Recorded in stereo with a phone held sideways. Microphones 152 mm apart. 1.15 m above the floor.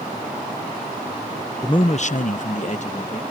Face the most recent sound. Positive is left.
turn(degrees=50)  # may be behind; listen again after turning